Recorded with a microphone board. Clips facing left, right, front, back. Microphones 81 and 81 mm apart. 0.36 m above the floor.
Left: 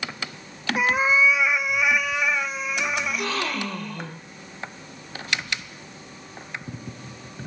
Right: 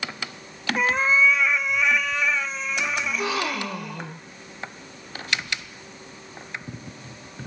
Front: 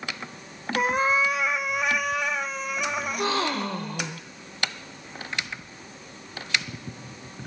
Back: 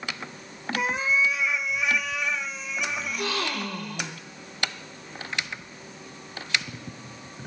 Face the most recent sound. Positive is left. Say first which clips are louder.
# right 1 dB, front 4 dB
turn(degrees=-20)